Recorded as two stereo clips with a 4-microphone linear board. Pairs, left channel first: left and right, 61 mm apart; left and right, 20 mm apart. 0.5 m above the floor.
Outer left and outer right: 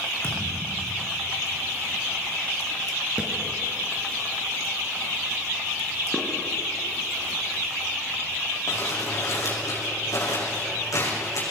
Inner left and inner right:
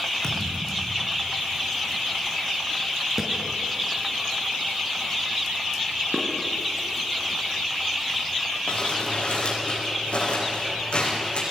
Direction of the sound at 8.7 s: 65° left (ahead or behind).